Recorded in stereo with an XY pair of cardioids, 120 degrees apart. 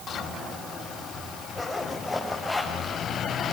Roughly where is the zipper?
Ahead.